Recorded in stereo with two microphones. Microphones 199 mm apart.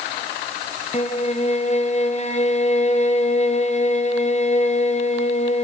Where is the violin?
35° left (ahead or behind), 0.6 m.